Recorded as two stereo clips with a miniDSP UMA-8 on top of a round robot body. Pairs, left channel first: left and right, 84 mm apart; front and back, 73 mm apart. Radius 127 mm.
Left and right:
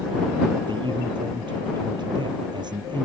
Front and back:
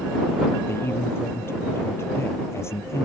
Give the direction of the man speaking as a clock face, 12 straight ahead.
2 o'clock.